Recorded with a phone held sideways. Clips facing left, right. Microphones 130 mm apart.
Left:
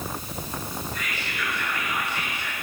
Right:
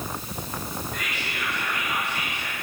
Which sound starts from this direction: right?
Whispering, at 0.9 s.